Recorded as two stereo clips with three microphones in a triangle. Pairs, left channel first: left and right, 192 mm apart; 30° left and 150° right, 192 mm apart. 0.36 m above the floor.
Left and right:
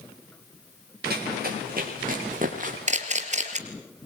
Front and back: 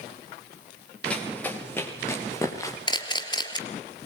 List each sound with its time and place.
1.0 s running footsteps: 55° right, 8 m; by 2.8 s 45° right, 7.5 m
2.9 s a camera shutter: 40° right, 3.5 m